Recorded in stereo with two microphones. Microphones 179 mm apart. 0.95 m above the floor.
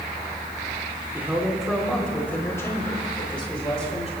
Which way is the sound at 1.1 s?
10° right (ahead or behind).